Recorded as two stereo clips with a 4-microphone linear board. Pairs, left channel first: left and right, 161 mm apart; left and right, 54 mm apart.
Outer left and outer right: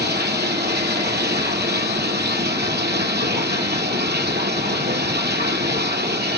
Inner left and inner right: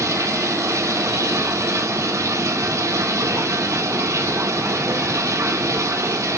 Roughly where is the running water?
Right.